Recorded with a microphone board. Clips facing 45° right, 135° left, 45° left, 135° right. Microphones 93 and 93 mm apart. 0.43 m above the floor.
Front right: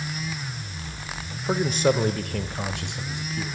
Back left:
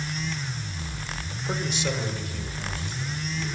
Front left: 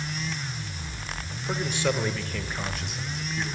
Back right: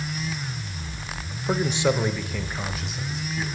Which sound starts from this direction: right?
A man speaking, at 1.5 s.